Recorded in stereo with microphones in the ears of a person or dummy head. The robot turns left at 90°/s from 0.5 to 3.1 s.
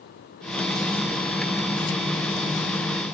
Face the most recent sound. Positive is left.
No sound to turn to.